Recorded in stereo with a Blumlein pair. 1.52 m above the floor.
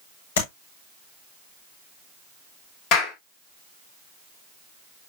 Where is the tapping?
60° left, 6 m.